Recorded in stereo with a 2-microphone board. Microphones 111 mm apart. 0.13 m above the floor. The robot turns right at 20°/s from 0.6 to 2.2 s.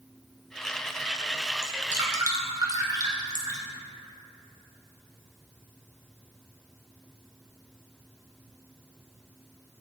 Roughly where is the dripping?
Right.